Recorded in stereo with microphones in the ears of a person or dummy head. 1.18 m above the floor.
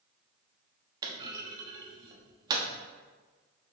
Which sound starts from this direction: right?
A clunk, at 1.0 s.